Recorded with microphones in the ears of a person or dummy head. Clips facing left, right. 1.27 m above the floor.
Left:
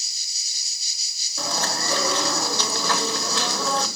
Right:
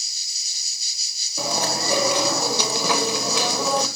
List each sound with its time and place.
1.4 s chewing: 20° right (ahead or behind), 2 m